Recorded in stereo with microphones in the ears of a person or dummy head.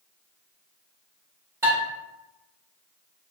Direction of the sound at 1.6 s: 15° right (ahead or behind).